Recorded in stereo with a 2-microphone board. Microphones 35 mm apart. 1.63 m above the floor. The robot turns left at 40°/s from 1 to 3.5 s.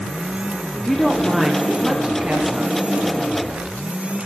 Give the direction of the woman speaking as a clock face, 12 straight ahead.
12 o'clock.